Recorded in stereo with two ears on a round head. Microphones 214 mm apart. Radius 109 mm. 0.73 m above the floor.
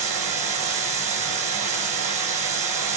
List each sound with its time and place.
0.0 s running water: 30° right (ahead or behind), 4 m